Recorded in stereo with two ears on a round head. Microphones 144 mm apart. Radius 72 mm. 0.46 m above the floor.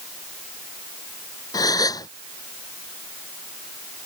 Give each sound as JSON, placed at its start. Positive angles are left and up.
{"t": 1.5, "sound": "a gasp", "side_deg": 25}